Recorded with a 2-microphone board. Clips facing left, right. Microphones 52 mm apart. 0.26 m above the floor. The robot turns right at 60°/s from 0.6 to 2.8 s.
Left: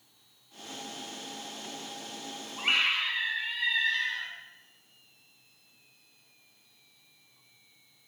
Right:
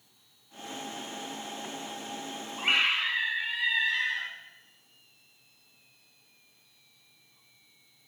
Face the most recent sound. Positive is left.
turn(degrees=-10)  # may be behind; listen again after turning